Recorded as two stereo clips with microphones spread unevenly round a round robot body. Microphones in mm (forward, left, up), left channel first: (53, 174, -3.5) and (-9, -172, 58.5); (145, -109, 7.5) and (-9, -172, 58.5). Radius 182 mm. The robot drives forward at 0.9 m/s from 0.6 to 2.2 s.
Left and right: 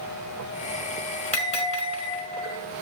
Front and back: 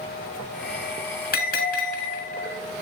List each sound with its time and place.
1.3 s a bell: 10° left, 5.5 m